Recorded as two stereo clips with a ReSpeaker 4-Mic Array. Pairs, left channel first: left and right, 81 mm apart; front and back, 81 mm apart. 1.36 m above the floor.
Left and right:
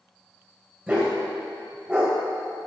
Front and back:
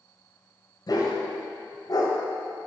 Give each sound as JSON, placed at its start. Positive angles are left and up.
{"t": 0.9, "sound": "a dog barking", "azimuth_deg": -25, "distance_m": 1.8}